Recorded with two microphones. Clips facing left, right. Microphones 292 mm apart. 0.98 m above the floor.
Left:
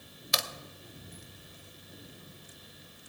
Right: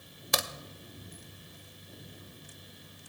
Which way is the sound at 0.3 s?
60° right (ahead or behind).